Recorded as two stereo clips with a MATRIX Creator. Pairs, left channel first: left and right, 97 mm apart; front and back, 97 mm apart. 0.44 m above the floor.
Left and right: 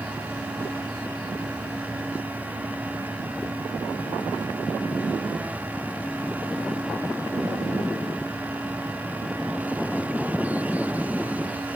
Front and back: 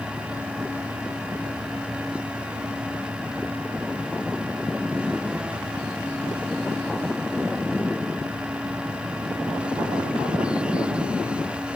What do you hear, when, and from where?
Only background noise.